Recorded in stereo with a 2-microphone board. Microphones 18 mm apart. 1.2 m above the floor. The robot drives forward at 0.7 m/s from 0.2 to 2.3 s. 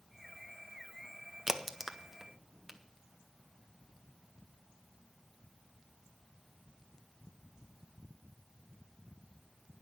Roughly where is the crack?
Centre.